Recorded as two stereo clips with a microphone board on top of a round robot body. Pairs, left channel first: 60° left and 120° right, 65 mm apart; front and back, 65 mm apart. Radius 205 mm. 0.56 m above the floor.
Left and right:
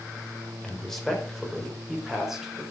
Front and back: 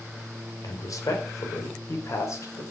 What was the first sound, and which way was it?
A man speaking, 20° right.